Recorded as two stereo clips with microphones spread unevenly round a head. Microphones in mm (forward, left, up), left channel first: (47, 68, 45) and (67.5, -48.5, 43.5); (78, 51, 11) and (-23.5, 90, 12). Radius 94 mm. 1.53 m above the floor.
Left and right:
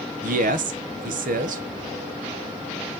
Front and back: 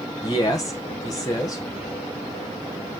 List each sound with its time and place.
0.2 s a man speaking: 95° right, 1.2 m